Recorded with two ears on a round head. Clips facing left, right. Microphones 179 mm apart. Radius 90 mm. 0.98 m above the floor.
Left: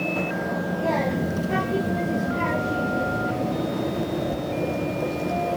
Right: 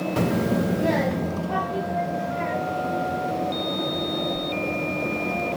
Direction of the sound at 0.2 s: 55° right (ahead or behind).